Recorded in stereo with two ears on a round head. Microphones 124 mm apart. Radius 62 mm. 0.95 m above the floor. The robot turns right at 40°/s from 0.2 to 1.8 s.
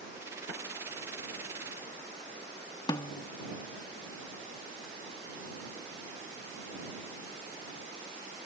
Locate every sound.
2.9 s a snare drum: 30° left (ahead or behind)